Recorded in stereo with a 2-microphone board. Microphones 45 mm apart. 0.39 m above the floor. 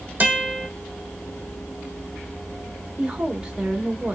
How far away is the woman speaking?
About 0.8 m.